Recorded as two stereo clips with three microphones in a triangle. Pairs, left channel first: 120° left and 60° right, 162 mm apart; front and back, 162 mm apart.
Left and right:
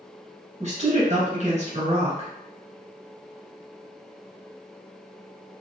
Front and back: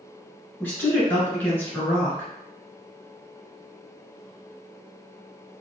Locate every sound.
0.6 s a woman speaking: 75° right, 1.8 m